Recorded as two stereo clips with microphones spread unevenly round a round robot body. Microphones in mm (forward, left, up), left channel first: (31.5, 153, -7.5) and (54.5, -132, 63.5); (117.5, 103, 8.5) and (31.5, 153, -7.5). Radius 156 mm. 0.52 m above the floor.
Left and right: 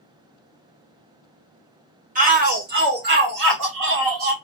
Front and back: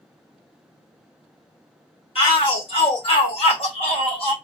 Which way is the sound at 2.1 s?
20° right.